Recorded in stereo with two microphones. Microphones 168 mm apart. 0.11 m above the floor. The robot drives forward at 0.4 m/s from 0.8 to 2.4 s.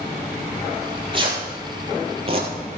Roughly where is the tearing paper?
Right.